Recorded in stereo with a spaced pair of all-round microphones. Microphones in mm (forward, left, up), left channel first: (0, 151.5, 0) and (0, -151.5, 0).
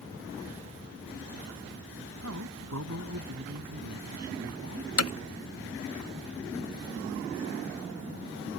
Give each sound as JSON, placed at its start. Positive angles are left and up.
{"t": 2.2, "sound": "a man speaking", "side_deg": -60}
{"t": 5.0, "sound": "hammering", "side_deg": 55}